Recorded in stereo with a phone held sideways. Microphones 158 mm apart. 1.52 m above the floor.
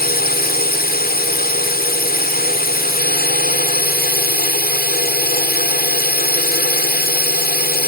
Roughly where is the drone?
Left.